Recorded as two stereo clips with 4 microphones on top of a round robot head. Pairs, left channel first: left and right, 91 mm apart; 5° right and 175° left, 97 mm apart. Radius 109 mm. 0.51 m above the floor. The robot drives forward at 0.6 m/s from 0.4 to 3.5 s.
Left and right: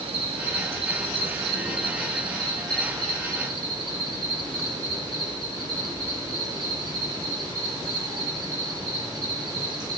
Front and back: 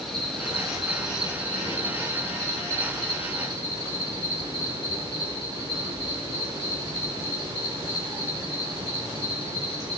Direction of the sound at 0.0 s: 90° right.